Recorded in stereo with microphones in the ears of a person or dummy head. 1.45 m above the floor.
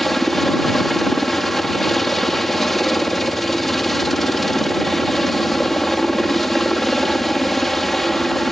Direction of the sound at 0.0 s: 5° left (ahead or behind).